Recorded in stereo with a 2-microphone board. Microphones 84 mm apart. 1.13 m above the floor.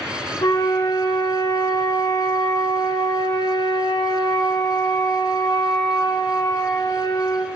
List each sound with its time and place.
0.4 s a flute: 85° left, 2.5 m